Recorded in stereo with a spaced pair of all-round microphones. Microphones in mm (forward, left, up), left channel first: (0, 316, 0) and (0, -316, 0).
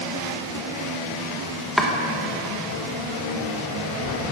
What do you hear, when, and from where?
1.8 s chopping: centre (ahead or behind), 1.0 m